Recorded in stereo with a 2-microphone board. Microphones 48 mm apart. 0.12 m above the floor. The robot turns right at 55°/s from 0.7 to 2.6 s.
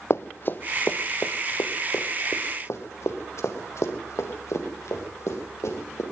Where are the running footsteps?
60° left (ahead or behind), 0.7 m; by 6.0 s 75° left (ahead or behind), 4.5 m.